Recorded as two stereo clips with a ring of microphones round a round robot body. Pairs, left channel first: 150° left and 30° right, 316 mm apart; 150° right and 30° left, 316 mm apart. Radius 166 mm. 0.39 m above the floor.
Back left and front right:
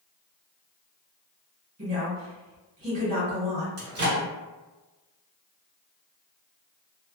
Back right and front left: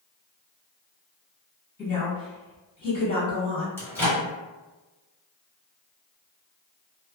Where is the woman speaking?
85° right, 1.7 m.